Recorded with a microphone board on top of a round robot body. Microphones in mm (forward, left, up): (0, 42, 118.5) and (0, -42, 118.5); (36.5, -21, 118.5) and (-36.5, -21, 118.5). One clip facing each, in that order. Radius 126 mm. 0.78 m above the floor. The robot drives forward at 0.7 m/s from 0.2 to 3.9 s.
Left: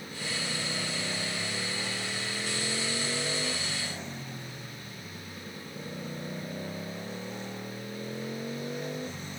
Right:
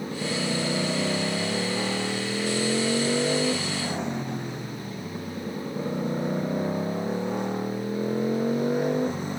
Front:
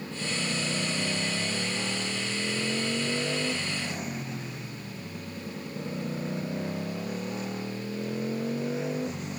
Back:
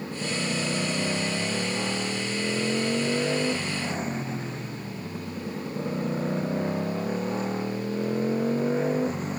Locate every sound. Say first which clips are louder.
0.0 s a motorcycle: right 9 dB, back 3 dB; 110° right; by 9.4 s 125° right